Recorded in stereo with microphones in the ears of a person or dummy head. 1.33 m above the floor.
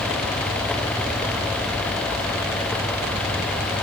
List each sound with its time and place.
Only background noise.